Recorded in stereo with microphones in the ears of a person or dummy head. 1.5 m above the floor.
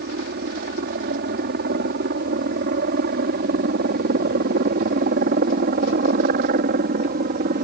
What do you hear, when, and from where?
0.0 s a helicopter: 50° right (ahead or behind); by 7.7 s 45° right (ahead or behind)